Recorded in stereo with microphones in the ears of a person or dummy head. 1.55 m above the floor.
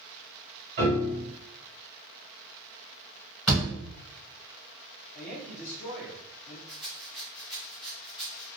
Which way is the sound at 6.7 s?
Centre (ahead or behind).